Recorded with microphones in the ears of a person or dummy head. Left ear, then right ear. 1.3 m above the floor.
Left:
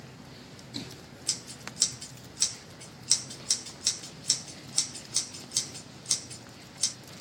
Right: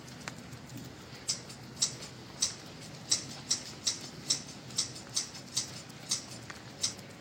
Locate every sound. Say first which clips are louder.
1.3 s scissors: left 4 dB; 60° left (ahead or behind), 1.0 m